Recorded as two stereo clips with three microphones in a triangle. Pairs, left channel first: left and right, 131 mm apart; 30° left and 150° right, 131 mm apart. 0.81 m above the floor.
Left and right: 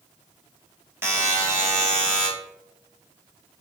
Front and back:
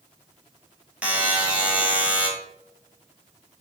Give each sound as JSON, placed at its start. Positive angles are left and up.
{"t": 1.0, "sound": "a buzzer", "azimuth_deg": -90, "distance_m": 0.8}